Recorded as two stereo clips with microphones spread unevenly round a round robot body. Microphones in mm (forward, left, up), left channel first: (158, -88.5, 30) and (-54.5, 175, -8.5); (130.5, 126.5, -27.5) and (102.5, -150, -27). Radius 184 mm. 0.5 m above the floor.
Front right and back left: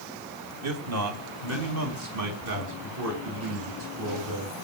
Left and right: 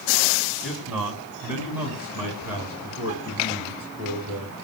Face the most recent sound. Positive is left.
turn(degrees=180)